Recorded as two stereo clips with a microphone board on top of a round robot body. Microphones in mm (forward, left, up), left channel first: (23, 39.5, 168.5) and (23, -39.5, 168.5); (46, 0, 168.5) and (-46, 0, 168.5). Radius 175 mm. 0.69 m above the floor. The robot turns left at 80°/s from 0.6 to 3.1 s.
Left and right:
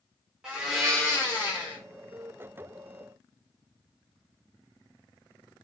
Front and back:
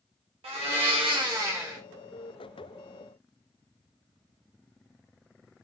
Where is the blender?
170° right, 1.2 m; by 1.8 s 95° left, 1.2 m.